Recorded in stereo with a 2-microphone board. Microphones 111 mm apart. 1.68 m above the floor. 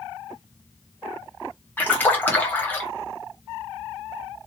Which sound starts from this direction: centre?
A splash, at 1.8 s.